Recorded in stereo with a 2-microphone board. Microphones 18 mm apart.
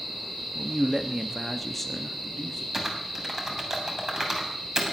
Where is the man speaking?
30° right (ahead or behind), 1.0 m; by 2.6 s 30° left (ahead or behind), 1.4 m.